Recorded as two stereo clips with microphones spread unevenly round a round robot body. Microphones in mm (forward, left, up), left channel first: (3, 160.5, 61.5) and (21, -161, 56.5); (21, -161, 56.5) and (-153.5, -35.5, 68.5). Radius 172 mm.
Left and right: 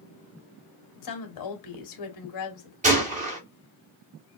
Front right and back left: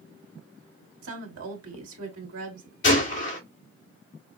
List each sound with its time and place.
1.0 s a woman speaking: 125° left, 2 m
2.8 s a gunshot: 20° right, 2 m